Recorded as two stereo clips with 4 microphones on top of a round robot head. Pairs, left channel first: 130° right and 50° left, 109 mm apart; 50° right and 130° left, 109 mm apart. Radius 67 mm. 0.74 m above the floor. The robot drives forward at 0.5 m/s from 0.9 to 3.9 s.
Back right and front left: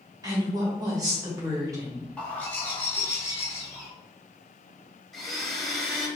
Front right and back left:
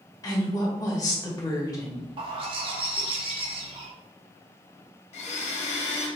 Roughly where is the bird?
Behind left.